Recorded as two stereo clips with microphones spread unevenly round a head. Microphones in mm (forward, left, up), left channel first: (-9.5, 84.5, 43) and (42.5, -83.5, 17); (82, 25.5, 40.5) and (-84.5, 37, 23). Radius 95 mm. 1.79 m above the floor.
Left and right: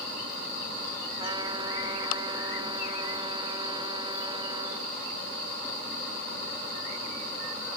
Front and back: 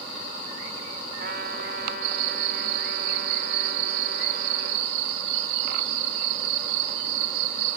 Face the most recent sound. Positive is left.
turn(degrees=-140)